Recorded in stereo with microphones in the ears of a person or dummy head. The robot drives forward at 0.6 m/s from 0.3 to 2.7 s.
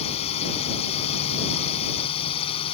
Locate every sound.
0.0 s a drone: 35° left (ahead or behind)